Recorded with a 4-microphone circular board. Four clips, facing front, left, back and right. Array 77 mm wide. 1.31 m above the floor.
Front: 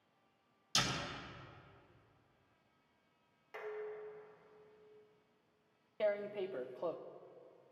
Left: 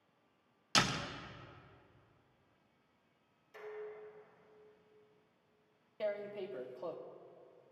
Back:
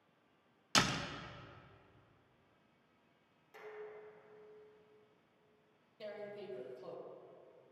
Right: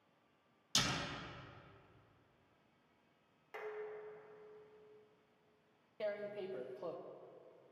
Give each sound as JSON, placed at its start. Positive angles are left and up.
{"t": 0.8, "sound": "a door slam", "azimuth_deg": 140, "distance_m": 1.2}
{"t": 3.5, "sound": "dishes clattering", "azimuth_deg": -55, "distance_m": 2.5}
{"t": 6.0, "sound": "tearing paper", "azimuth_deg": 5, "distance_m": 1.1}